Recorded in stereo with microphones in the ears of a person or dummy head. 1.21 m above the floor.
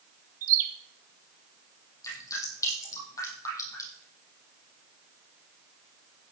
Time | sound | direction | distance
0.4 | a bird | 50° right (ahead or behind) | 2.5 m
2.0 | dripping | 15° left (ahead or behind) | 7.5 m